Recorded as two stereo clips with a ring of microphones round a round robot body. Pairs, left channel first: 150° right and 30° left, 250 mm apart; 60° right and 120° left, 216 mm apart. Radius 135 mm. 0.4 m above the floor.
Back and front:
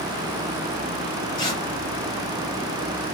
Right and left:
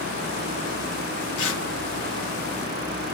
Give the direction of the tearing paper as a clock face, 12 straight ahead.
3 o'clock.